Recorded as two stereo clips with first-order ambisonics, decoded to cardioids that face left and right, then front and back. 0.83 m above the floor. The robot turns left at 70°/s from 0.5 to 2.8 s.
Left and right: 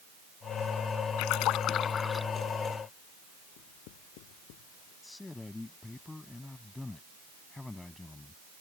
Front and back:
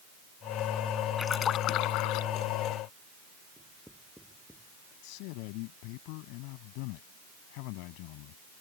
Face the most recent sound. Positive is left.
turn(degrees=10)